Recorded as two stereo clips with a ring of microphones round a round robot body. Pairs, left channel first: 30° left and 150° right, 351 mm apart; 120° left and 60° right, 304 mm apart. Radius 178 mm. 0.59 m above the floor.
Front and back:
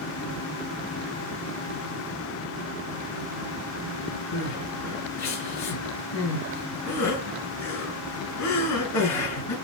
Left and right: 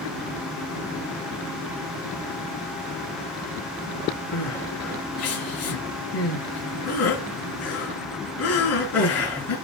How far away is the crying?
About 6.5 m.